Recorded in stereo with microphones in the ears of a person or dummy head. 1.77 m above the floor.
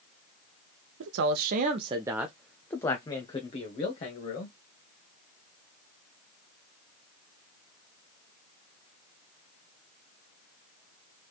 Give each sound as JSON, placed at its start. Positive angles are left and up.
{"t": 1.0, "sound": "a man speaking", "side_deg": -65, "distance_m": 0.7}